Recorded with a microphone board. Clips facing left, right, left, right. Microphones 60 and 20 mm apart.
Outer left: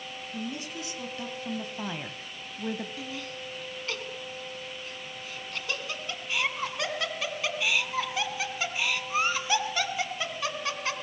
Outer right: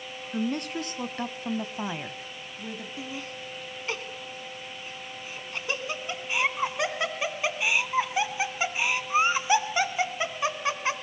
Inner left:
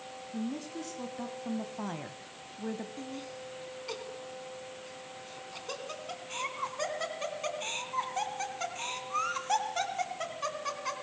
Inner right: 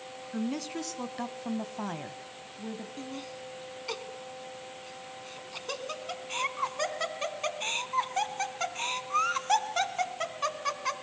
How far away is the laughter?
About 2 m.